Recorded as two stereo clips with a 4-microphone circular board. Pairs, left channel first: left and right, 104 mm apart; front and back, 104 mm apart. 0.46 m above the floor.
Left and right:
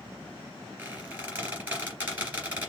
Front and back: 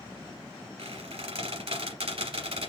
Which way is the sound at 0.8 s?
160° right.